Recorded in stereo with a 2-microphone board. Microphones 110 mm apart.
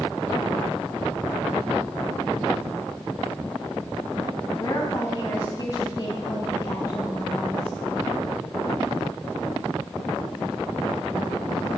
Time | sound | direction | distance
4.5 | a woman speaking | 40° left (ahead or behind) | 1.7 m